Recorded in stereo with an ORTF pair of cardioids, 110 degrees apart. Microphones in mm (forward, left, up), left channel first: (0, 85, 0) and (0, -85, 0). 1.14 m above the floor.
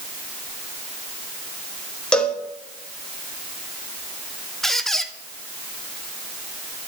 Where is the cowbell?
5° left, 1.5 m.